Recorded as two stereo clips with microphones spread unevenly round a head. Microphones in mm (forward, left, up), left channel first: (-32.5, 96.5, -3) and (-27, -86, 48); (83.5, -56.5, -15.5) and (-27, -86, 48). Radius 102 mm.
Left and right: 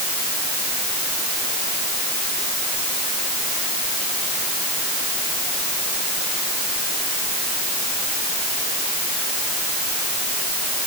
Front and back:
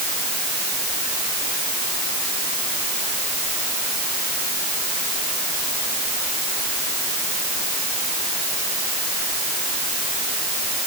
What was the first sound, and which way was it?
Only background noise.